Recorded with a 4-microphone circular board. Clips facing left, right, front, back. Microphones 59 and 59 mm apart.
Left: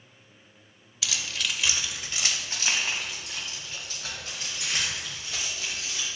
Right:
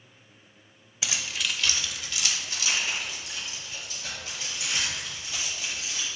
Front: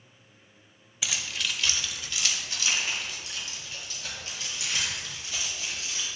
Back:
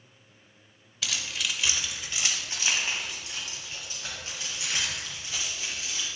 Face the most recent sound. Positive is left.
turn(degrees=120)